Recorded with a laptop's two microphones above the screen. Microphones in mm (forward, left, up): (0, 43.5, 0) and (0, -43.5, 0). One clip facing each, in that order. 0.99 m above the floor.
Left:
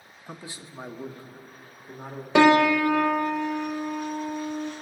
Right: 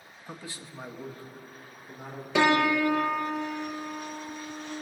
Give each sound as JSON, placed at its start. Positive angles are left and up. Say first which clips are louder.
{"t": 0.3, "sound": "a man speaking", "louder": "left 1 dB", "side_deg": 10, "distance_m": 0.9}
{"t": 2.4, "sound": "a piano", "louder": "left 6 dB", "side_deg": 60, "distance_m": 0.7}